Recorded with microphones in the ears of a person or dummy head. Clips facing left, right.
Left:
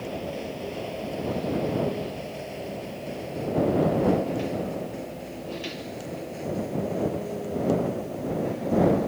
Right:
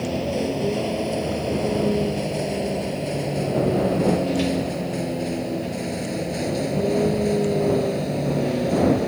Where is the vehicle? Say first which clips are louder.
Right 8 dB; 65° right (ahead or behind); by 9.1 s 85° right.